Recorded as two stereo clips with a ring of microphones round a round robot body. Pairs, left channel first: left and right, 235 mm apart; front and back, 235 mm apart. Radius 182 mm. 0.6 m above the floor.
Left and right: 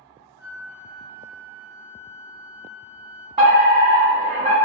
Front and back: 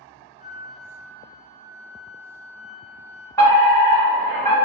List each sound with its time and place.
0.4 s a flute: 110° right, 0.9 m
3.4 s a fire alarm: 65° right, 1.7 m